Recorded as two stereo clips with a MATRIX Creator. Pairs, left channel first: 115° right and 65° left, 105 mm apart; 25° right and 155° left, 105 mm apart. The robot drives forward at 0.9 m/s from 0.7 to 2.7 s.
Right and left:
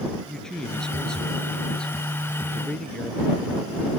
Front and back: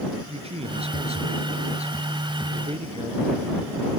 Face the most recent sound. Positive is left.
turn(degrees=165)